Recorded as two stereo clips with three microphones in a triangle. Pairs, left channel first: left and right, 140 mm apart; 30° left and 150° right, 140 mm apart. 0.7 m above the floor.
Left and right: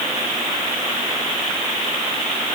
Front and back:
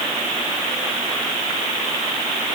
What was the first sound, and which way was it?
Only background noise.